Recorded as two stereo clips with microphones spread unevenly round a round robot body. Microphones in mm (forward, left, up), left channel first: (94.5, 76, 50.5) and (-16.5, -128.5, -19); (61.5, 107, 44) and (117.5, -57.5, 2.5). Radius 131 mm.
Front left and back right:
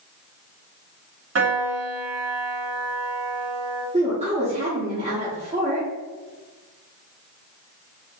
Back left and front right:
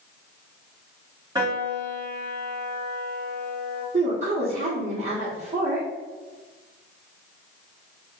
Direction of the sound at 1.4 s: 145° right.